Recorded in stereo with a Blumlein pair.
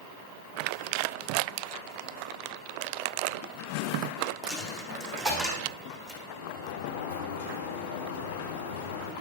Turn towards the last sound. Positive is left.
turn(degrees=55)